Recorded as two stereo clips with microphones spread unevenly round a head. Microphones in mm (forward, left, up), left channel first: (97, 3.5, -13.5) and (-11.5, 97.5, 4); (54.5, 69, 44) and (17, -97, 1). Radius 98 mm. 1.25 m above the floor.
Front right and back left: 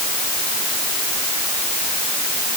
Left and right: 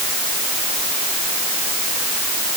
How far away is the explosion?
I don't hear an explosion.